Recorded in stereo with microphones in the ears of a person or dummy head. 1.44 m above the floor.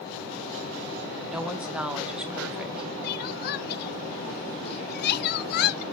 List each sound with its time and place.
1.3 s a woman speaking: 5° right (ahead or behind), 1.0 m
3.0 s crying: 55° left (ahead or behind), 0.6 m